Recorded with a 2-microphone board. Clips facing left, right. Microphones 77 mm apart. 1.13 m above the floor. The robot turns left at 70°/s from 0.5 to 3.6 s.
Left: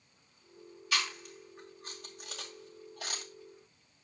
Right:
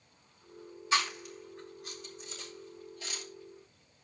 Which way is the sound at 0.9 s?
25° right (ahead or behind).